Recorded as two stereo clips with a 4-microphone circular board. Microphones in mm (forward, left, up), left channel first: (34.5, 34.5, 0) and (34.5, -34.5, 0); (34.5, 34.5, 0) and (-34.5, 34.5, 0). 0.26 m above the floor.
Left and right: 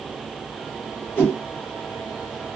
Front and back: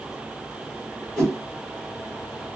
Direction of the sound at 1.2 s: 65° left.